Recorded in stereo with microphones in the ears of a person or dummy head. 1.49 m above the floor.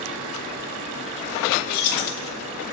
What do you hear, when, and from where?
1.7 s keys jangling: 50° left (ahead or behind), 1.2 m